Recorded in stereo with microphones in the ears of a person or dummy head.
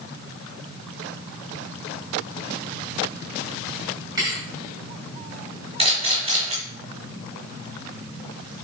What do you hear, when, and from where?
4.2 s a thud: 15° right (ahead or behind), 4.5 m
5.8 s a camera shutter: 30° right (ahead or behind), 3.5 m